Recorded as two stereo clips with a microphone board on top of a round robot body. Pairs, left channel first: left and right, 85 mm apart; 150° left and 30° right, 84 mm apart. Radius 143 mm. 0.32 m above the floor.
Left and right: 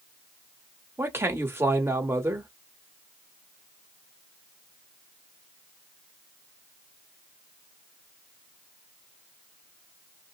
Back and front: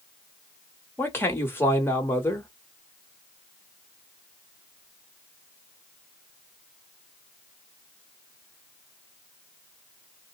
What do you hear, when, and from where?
1.0 s a man speaking: 150° right, 1.5 m